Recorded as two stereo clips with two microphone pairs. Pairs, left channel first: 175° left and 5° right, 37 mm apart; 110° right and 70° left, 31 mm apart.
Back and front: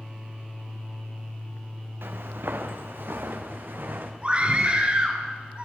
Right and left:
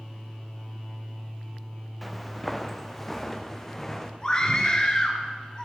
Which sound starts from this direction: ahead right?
A scream, at 4.2 s.